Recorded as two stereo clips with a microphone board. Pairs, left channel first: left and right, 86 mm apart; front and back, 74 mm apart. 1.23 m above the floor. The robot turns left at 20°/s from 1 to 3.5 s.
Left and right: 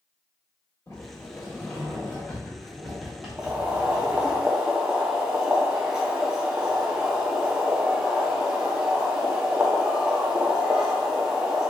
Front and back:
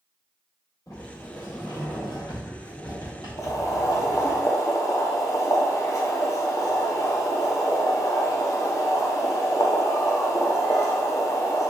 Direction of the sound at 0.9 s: 40° left.